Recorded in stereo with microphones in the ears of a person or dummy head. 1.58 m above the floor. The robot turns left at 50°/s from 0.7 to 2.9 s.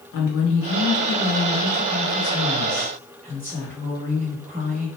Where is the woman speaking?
70° left, 1.4 m; by 4.9 s 40° right, 1.4 m.